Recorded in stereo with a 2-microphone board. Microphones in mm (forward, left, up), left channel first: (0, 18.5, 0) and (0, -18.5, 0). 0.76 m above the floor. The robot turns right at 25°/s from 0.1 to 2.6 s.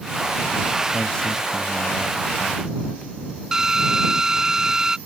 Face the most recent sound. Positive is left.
turn(degrees=-15)  # may be behind; listen again after turning